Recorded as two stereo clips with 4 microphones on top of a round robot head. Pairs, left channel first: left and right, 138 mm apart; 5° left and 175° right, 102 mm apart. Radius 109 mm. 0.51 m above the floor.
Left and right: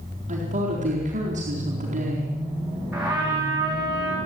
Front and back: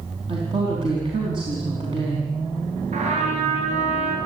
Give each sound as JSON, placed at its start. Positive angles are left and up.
{"t": 0.3, "sound": "a woman speaking", "azimuth_deg": -130, "distance_m": 4.5}
{"t": 2.9, "sound": "a trumpet", "azimuth_deg": -170, "distance_m": 6.0}